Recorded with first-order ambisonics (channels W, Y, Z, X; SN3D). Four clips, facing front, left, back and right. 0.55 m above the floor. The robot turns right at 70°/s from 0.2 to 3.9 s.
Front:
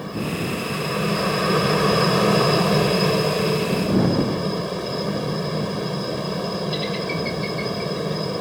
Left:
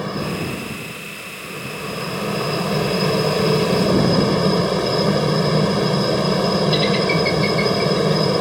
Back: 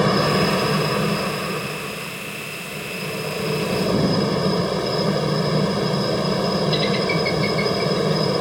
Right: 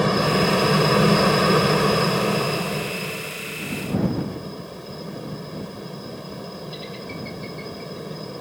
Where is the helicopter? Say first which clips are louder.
Right 5 dB, back 9 dB; 155° right; by 8.4 s 115° left.